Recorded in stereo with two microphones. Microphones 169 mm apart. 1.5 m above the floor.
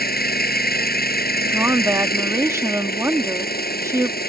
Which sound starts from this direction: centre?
A woman speaking, at 1.4 s.